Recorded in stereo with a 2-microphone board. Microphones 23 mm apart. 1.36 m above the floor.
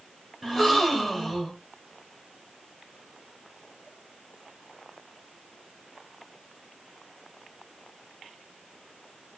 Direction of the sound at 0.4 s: 10° left (ahead or behind).